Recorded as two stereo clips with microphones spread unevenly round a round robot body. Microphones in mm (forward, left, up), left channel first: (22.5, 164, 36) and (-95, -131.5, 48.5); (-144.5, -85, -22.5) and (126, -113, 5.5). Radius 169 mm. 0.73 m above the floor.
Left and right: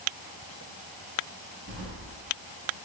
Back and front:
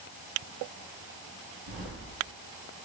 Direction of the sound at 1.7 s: 55° right.